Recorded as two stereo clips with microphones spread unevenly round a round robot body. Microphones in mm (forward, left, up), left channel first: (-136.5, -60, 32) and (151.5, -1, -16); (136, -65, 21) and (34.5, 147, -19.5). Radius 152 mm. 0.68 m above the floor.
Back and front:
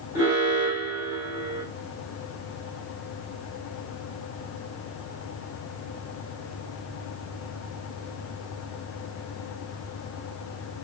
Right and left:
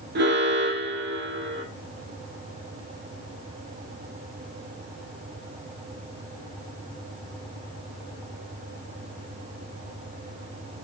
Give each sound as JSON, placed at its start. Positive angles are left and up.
{"t": 0.1, "sound": "an alarm", "azimuth_deg": 85, "distance_m": 2.5}